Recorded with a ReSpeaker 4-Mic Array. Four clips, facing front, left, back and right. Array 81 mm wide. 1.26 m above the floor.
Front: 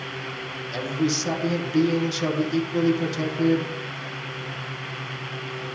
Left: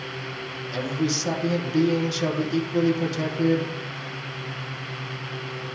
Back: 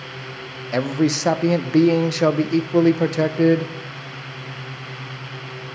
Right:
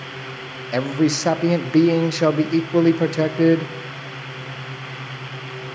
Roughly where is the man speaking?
Behind right.